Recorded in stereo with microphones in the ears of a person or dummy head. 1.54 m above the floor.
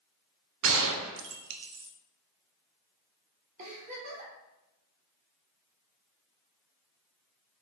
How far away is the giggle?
About 2.5 m.